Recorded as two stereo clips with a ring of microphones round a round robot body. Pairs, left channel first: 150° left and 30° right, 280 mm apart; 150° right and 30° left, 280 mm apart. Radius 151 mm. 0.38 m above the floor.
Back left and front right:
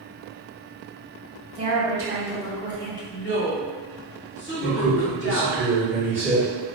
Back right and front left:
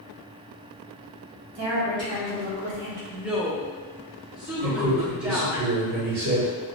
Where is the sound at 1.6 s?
35° left, 1.5 m; by 3.0 s 75° left, 1.3 m.